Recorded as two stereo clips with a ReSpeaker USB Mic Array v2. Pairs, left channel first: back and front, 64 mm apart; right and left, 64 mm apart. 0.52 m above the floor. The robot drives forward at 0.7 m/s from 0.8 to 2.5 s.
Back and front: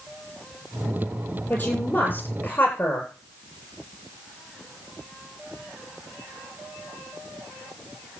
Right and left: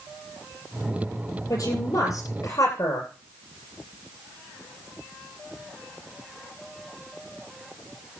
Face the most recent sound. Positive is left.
turn(degrees=-125)